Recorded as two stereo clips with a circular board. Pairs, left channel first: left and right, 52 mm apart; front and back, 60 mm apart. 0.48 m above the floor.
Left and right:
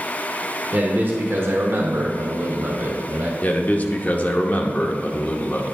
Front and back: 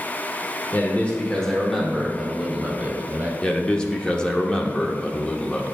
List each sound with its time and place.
0.7 s a man speaking: 50° right, 1.1 m; by 3.3 s 125° right, 1.5 m
3.4 s a man speaking: 65° left, 0.8 m